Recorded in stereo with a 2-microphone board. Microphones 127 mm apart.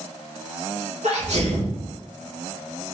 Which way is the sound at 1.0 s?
65° right (ahead or behind).